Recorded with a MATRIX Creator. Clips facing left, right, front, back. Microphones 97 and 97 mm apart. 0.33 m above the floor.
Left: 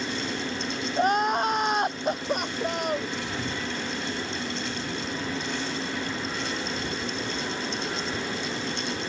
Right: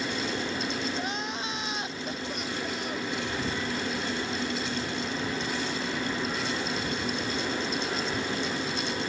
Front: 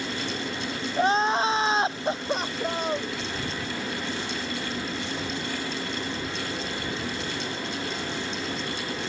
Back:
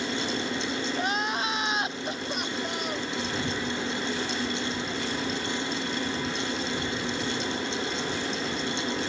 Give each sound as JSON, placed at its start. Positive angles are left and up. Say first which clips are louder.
{"t": 1.0, "sound": "crying", "louder": "left 10 dB, front 10 dB", "azimuth_deg": 55}